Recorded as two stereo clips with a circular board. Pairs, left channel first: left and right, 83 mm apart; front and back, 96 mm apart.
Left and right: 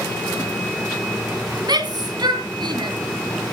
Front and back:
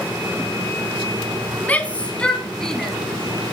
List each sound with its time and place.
1.6 s a shout: 70° right, 3 m; by 3.0 s 85° right, 3 m